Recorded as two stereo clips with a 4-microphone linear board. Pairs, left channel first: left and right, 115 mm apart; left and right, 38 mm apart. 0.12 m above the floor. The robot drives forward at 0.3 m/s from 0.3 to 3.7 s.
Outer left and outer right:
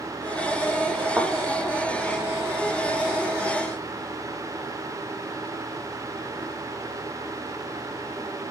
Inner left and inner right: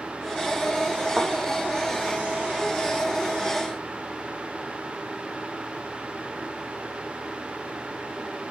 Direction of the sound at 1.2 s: 5° right (ahead or behind).